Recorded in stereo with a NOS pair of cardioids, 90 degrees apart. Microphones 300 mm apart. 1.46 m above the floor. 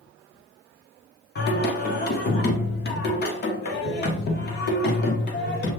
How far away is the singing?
About 1.0 m.